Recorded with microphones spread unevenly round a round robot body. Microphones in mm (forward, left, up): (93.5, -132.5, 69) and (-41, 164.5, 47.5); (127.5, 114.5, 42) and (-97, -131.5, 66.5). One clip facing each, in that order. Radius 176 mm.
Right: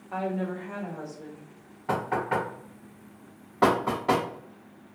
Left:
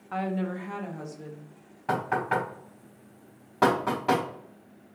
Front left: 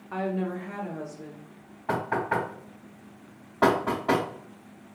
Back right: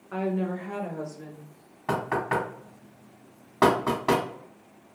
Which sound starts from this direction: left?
A woman speaking, at 0.1 s.